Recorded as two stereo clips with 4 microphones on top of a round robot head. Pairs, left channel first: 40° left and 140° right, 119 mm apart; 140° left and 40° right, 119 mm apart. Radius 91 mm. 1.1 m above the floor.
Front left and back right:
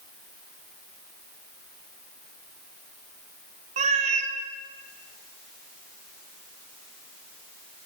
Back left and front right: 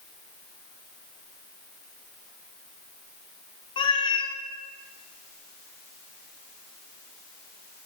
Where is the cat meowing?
170° right, 0.6 m.